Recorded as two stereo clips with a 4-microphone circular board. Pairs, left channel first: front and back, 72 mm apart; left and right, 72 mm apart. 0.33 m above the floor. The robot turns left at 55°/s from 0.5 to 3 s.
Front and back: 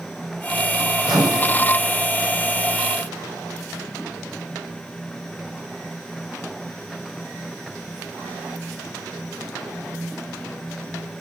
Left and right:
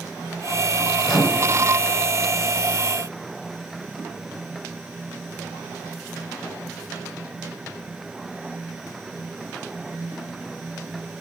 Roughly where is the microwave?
Ahead.